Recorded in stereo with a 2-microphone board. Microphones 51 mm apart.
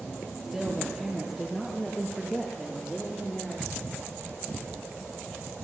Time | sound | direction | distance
0.4 | a woman speaking | 10° right (ahead or behind) | 9 m